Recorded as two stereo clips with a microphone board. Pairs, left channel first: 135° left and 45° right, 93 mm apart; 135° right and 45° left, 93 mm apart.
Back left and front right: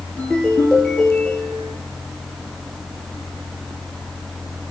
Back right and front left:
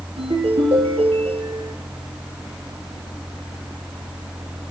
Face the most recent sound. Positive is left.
turn(degrees=55)